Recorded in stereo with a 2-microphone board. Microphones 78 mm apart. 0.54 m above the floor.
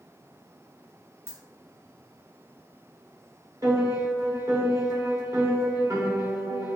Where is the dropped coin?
30° right (ahead or behind), 0.8 m.